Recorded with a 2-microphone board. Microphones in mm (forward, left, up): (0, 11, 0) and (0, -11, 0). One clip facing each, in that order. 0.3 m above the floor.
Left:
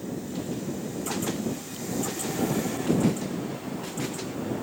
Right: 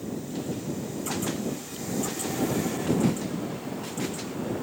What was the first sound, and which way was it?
Only background noise.